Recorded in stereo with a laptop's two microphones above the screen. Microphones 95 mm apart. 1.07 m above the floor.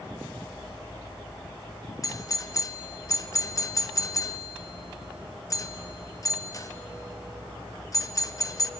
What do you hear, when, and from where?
2.0 s a doorbell: 35° left (ahead or behind), 0.7 m